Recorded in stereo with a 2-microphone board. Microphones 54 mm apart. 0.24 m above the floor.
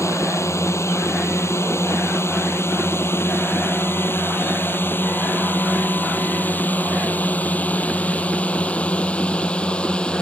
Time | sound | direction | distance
0.0 | a drone | 60° left (ahead or behind) | ?